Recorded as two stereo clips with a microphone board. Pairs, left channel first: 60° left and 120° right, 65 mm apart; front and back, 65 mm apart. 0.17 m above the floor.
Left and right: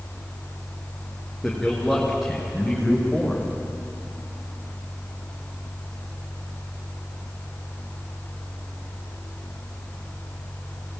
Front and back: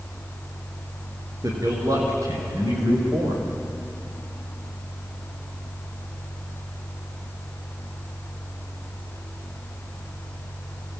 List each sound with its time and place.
1.4 s a man speaking: 150° left, 9.5 m; by 3.5 s 155° left, 10 m